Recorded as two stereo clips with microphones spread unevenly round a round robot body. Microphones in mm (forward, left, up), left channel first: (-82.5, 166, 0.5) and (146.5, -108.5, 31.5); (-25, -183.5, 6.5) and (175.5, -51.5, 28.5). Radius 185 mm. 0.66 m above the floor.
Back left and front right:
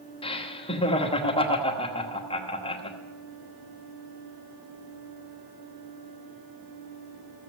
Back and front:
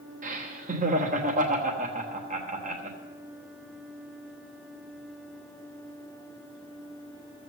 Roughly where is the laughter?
Left.